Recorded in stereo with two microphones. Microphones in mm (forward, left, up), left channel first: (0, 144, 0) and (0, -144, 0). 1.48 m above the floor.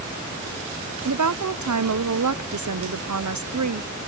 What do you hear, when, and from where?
1.1 s a woman speaking: 70° right (ahead or behind), 0.7 m